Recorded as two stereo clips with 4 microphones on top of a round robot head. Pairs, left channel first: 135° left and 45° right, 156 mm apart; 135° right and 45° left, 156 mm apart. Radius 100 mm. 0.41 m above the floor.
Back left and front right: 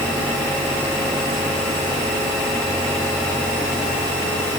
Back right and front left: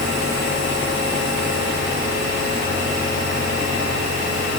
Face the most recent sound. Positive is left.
No sound to turn to.